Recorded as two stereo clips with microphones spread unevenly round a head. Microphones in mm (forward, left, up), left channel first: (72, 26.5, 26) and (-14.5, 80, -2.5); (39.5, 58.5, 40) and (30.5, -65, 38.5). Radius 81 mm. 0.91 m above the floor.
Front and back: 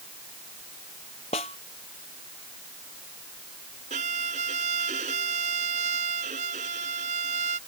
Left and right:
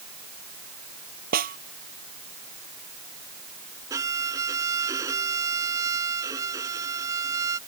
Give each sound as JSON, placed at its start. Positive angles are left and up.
{"t": 1.3, "sound": "a snare drum", "azimuth_deg": -85}
{"t": 3.9, "sound": "a violin", "azimuth_deg": -165}